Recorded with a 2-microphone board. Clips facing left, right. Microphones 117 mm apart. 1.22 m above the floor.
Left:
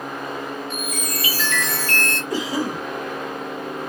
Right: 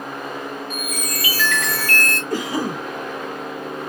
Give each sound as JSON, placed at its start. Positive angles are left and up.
{"t": 0.7, "sound": "a chime", "side_deg": 25, "distance_m": 0.9}
{"t": 2.3, "sound": "a cough", "side_deg": -55, "distance_m": 1.3}